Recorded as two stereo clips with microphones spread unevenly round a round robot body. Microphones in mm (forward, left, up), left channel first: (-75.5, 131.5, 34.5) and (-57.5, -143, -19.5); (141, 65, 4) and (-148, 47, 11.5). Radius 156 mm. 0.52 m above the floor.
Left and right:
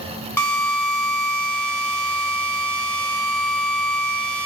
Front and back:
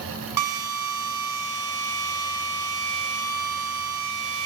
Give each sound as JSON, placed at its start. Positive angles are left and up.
{"t": 0.4, "sound": "a drill", "azimuth_deg": 180, "distance_m": 2.5}